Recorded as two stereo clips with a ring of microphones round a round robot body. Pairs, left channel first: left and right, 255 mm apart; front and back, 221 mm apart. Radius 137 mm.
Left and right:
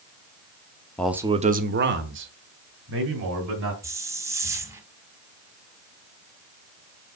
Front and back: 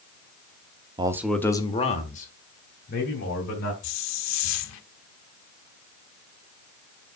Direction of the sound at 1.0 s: 165° left.